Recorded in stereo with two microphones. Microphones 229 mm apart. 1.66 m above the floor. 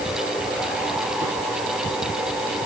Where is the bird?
No bird in this recording.